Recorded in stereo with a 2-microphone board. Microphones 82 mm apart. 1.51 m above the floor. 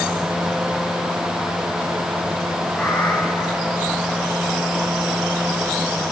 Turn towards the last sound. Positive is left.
turn(degrees=15)  # may be behind; listen again after turning